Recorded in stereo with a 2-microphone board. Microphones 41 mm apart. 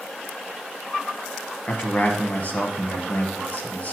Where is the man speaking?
35° left (ahead or behind), 1.3 m.